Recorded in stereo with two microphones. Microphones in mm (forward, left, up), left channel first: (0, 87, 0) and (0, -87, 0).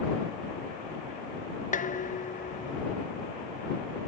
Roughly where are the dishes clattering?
Left.